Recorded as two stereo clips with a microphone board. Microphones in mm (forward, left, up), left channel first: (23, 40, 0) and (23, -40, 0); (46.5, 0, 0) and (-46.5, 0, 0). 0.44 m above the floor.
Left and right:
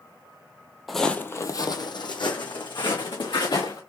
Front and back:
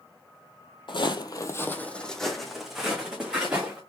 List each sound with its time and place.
0.9 s footsteps: 5° right, 0.7 m; by 3.8 s 100° left, 2.5 m